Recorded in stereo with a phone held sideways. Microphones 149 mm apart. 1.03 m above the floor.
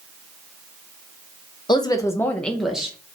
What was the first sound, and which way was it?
A woman speaking, 30° left (ahead or behind).